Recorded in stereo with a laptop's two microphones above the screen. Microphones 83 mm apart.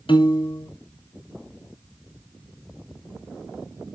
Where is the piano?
80° left, 1.9 m.